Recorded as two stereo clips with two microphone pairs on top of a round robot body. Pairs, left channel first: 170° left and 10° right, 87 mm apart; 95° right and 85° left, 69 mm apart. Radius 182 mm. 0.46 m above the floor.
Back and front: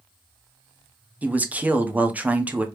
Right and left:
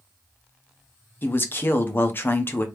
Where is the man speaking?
70° right, 1.0 m.